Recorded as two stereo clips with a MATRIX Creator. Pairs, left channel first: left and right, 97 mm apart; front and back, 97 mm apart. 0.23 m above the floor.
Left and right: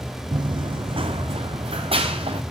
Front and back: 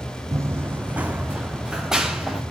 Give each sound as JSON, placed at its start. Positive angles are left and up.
{"t": 0.3, "sound": "running footsteps", "azimuth_deg": -125, "distance_m": 0.6}